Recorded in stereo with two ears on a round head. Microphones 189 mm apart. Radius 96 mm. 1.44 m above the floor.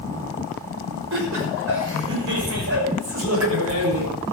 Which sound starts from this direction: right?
Laughter, at 1.1 s.